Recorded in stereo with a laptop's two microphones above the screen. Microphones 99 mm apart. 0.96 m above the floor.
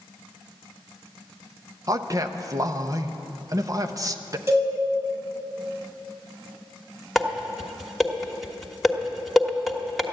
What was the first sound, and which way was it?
A man speaking, 40° right (ahead or behind).